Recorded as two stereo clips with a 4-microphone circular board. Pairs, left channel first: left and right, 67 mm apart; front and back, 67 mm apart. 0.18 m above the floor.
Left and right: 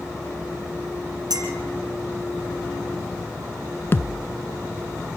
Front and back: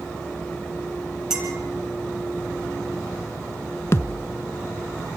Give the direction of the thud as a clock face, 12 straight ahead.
11 o'clock.